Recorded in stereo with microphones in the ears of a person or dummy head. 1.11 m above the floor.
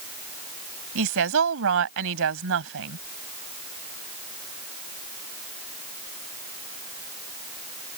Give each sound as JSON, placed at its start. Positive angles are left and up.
{"t": 0.9, "sound": "a woman speaking", "side_deg": -80}